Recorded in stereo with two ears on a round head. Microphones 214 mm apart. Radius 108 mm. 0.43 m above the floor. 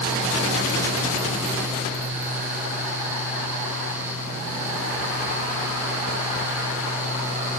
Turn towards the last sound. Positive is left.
No sound to turn to.